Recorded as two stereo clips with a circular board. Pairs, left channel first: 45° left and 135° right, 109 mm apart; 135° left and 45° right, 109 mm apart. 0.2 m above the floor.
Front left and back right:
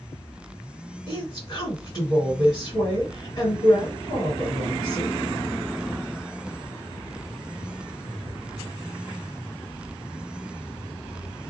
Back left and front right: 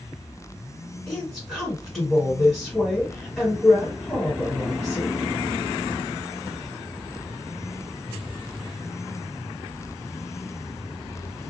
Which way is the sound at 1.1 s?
60° left.